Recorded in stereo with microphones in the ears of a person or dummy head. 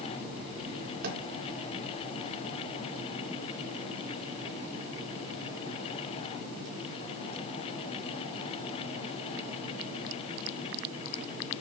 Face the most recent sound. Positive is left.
turn(degrees=-55)  # may be behind; listen again after turning